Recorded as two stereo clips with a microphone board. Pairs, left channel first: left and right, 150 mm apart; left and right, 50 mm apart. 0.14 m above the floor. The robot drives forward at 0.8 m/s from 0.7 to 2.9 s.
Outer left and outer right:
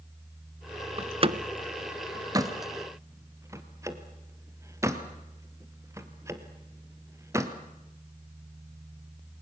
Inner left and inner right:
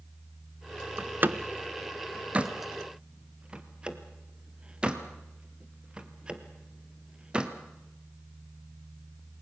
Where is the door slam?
40° right (ahead or behind), 0.9 m; by 7.5 s 20° right (ahead or behind), 1.8 m.